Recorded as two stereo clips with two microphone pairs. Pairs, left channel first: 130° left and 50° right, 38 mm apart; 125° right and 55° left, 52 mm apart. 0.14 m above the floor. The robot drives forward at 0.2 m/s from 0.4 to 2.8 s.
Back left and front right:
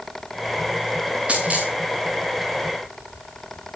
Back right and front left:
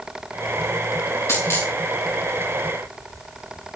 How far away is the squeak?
I don't hear a squeak.